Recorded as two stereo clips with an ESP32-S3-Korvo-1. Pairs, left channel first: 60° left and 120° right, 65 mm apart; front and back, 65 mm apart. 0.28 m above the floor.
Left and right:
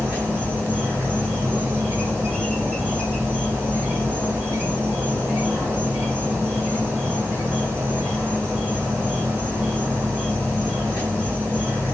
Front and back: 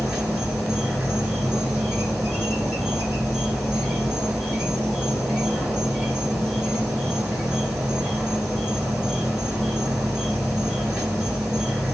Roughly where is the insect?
Right.